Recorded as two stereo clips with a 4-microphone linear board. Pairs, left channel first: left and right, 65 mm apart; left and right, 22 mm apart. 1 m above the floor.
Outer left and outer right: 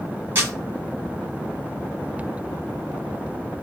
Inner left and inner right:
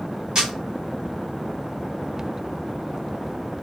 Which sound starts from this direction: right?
A camera shutter, at 0.3 s.